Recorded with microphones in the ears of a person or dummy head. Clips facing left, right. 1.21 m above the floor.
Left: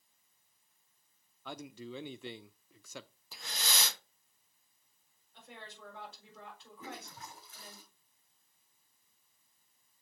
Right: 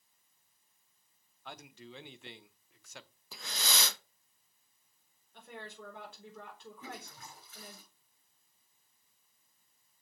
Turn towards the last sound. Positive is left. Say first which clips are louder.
# left 3 dB
turn(degrees=40)  # may be behind; listen again after turning